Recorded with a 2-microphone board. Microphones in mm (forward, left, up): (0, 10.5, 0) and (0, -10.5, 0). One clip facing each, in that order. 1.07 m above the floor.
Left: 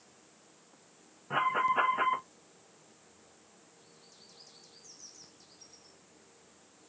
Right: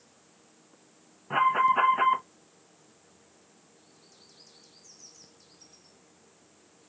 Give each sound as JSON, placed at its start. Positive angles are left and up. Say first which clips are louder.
{"t": 1.3, "sound": "an alarm", "louder": "right 6 dB", "side_deg": -10, "distance_m": 1.1}